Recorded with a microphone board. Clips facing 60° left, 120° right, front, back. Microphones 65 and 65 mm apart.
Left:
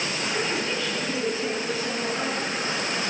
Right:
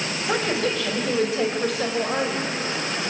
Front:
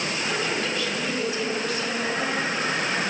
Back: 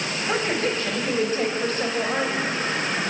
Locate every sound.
0.3 s a woman speaking: 130° right, 6.5 m